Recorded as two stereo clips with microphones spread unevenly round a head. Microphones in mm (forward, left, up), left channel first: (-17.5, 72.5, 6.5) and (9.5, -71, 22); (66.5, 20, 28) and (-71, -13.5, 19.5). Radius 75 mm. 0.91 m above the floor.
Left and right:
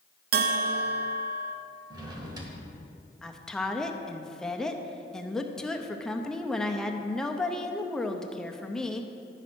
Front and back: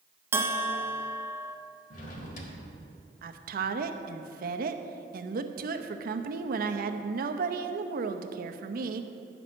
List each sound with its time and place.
0.3 s a bell: 95° right, 0.6 m
1.9 s a drawer: 20° right, 1.1 m
3.2 s a woman speaking: 175° right, 0.7 m